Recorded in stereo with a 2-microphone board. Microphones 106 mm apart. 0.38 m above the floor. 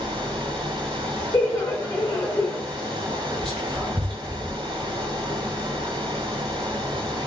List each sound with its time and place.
0.0 s running water: 45° right (ahead or behind), 1.1 m
1.3 s laughter: 30° left (ahead or behind), 0.9 m
3.4 s whispering: 10° left (ahead or behind), 1.8 m